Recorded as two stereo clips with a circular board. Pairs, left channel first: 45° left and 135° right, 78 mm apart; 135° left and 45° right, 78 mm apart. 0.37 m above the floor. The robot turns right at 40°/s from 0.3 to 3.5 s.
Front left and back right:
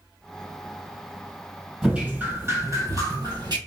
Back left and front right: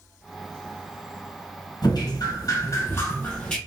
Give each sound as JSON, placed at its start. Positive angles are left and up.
{"t": 1.8, "sound": "dripping", "azimuth_deg": 145, "distance_m": 2.0}